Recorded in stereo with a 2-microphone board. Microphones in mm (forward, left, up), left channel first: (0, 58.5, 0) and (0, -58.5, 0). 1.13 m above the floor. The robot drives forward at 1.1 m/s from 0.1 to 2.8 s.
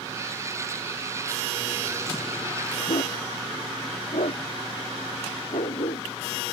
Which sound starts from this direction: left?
A dog barking, at 2.9 s.